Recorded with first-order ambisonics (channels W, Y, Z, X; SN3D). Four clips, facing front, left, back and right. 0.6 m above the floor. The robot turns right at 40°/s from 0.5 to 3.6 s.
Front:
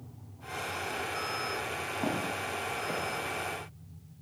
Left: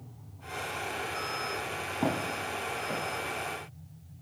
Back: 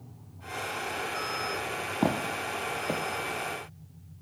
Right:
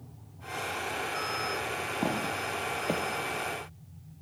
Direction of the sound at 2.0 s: Straight behind.